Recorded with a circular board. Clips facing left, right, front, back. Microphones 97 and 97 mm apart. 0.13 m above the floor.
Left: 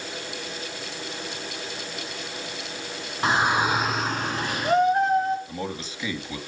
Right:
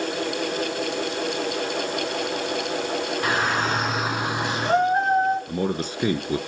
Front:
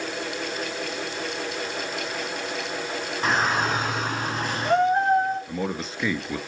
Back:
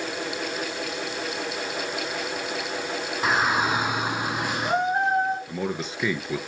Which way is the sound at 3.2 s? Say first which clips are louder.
Left 4 dB, even; 105° left.